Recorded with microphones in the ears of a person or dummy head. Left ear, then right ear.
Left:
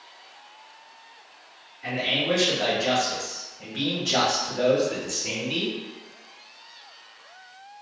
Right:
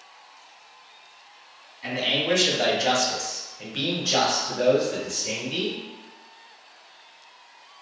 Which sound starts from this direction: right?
A man speaking, at 1.8 s.